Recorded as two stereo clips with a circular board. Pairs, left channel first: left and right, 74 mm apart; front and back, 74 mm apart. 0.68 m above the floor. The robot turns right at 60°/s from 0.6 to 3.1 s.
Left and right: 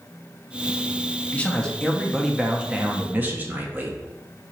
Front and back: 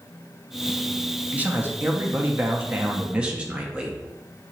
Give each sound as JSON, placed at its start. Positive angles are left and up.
{"t": 1.3, "sound": "a man speaking", "azimuth_deg": 130, "distance_m": 0.6}